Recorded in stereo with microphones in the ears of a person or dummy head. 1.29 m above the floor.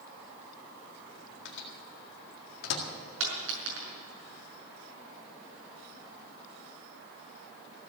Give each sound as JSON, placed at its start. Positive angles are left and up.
{"t": 1.4, "sound": "a microwave", "side_deg": 60, "distance_m": 1.9}
{"t": 3.2, "sound": "a dropped coin", "side_deg": -70, "distance_m": 5.5}